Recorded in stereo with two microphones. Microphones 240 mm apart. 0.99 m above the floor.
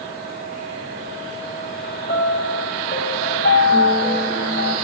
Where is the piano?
45° left (ahead or behind), 0.9 m.